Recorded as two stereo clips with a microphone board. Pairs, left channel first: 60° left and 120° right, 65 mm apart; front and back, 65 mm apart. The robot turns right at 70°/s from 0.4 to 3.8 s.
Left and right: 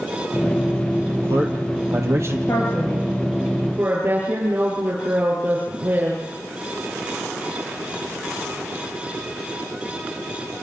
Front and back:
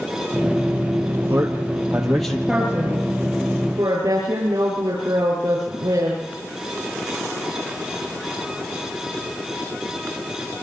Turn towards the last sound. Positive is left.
turn(degrees=-175)